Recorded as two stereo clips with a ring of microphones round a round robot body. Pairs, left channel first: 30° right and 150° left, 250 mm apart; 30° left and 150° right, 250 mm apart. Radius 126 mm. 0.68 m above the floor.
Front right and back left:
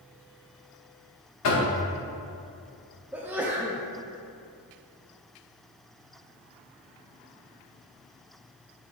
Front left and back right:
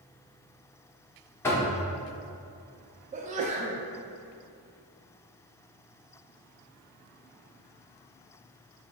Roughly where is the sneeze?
Behind right.